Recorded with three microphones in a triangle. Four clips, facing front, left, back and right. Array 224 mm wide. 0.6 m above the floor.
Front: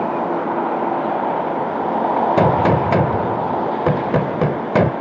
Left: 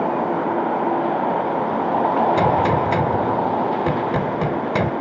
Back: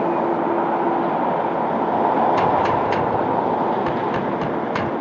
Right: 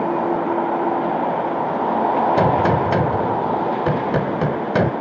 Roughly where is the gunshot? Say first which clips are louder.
Right 1 dB, front 3 dB; ahead.